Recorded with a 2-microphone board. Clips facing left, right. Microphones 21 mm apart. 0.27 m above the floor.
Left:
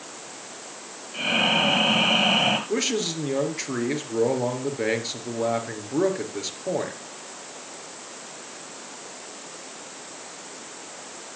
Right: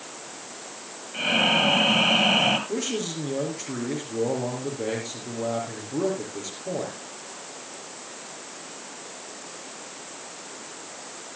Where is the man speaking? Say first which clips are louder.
Left 3 dB; 65° left (ahead or behind), 4.5 m.